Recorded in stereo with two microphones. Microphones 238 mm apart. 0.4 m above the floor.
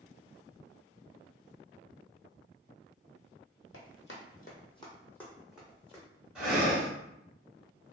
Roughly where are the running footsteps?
Left.